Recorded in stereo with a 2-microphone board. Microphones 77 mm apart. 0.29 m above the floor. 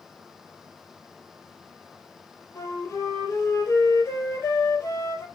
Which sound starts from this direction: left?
A flute, at 2.5 s.